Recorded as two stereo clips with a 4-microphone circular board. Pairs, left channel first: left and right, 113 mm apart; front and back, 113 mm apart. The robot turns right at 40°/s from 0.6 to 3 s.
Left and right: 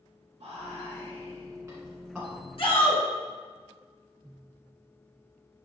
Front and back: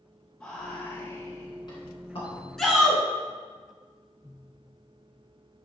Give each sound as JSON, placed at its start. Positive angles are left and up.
{"t": 0.4, "sound": "whispering", "azimuth_deg": -70, "distance_m": 1.6}
{"t": 2.6, "sound": "a shout", "azimuth_deg": 85, "distance_m": 2.5}